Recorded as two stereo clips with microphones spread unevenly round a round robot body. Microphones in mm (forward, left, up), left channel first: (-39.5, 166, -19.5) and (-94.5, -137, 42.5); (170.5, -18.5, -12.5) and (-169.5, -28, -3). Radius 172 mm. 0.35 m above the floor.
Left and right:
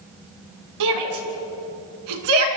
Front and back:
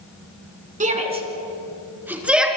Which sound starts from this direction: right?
A shout, at 0.8 s.